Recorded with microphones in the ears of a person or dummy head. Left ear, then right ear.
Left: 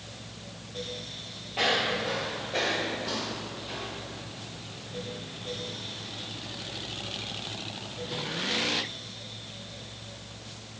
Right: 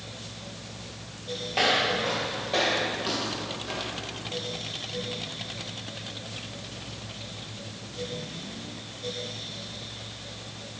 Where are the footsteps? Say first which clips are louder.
Right 2 dB; 15° right (ahead or behind), 1.4 m; by 4.2 s 35° right (ahead or behind), 3 m.